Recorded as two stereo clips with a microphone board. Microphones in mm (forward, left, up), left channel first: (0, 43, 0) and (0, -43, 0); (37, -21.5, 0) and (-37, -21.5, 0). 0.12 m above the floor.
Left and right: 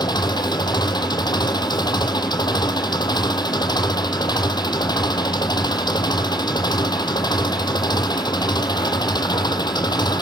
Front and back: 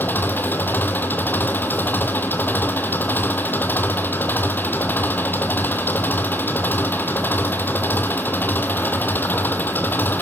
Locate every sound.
0.0 s an engine running: 60° left, 1.3 m